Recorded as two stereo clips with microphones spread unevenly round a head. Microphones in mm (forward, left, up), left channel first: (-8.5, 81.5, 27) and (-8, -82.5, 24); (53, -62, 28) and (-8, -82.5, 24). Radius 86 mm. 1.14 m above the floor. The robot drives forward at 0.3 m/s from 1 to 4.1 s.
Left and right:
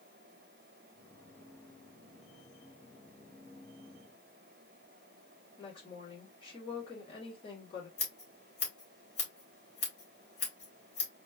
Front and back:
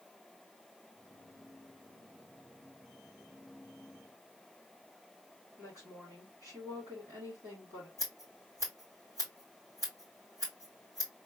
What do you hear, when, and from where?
5.6 s a woman speaking: 150° left, 3 m
8.0 s scissors: 135° left, 2.5 m